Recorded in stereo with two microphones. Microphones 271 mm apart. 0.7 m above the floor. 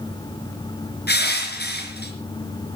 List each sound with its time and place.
1.1 s crushing: 35° left (ahead or behind), 4 m